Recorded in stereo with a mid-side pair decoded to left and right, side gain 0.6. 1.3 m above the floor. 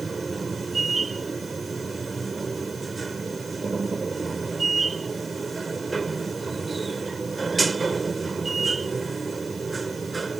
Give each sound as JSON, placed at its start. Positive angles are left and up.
{"t": 0.0, "sound": "a machine running", "azimuth_deg": -20}